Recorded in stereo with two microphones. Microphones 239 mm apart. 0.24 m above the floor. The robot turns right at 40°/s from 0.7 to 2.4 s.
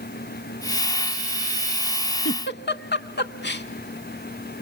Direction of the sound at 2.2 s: 50° left (ahead or behind).